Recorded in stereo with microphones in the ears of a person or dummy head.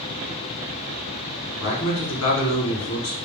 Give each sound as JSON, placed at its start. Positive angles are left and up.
{"t": 1.6, "sound": "a man speaking", "side_deg": 60, "distance_m": 1.0}